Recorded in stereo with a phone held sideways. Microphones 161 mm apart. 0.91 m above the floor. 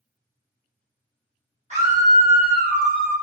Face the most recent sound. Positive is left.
turn(degrees=-55)  # may be behind; listen again after turning